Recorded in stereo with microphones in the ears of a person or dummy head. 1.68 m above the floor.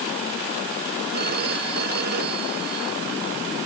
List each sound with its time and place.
1.1 s a phone ringing: 45° right (ahead or behind)